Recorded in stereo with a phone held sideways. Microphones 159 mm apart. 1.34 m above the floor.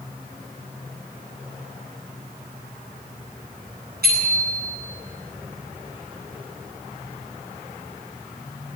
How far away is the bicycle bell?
About 10 m.